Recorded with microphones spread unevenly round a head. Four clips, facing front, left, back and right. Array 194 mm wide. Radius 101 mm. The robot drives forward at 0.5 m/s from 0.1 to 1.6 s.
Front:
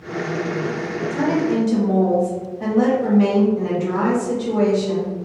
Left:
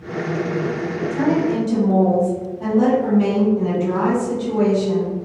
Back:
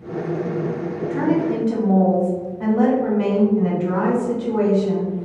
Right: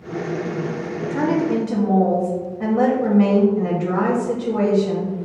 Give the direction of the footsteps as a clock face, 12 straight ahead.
No footsteps in this recording.